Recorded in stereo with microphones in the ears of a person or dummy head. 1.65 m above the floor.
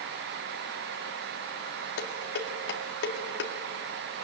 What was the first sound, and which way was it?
Dishes clattering, 60° left (ahead or behind).